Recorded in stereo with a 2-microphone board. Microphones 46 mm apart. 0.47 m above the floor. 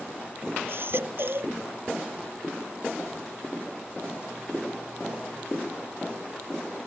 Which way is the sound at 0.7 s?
50° right (ahead or behind).